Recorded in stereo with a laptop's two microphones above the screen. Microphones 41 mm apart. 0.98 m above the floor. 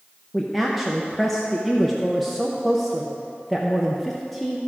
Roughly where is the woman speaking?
Centre.